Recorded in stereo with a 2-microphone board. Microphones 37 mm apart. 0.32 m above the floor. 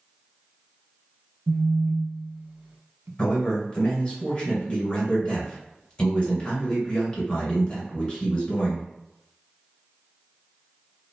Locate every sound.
1.5 s a phone buzzing: 70° right (ahead or behind), 0.6 m
3.2 s a man speaking: 30° left (ahead or behind), 1.6 m